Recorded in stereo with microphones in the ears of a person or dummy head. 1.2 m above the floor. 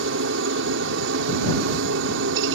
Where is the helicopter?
70° right (ahead or behind).